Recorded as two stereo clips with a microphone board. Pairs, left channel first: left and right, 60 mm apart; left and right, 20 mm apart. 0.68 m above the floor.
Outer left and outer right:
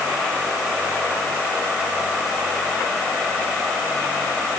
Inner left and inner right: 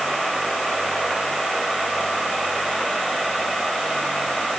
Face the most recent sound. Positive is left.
No sound to turn to.